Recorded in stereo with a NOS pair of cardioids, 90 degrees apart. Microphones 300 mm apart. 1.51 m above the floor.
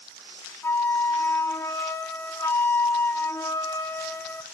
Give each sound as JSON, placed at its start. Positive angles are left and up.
{"t": 0.6, "sound": "a flute", "azimuth_deg": 10, "distance_m": 0.5}